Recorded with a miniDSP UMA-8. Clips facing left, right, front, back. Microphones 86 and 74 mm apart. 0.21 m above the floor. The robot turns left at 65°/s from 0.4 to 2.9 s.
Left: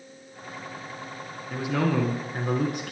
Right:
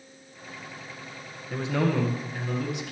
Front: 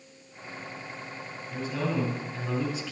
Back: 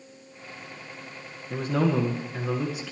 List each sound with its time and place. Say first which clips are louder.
1.5 s a man speaking: left 1 dB, back 6 dB; straight behind, 2 m; by 2.9 s 90° left, 2 m